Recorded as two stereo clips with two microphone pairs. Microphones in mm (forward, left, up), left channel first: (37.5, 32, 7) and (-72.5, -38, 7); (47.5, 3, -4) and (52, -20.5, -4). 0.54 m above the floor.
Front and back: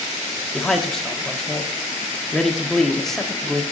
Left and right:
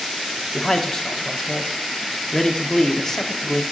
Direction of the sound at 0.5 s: 120° left.